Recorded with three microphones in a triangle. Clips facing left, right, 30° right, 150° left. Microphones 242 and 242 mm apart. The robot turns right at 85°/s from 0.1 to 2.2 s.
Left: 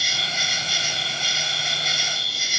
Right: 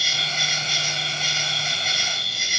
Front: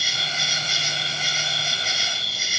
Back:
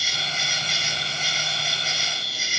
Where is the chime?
No chime in this recording.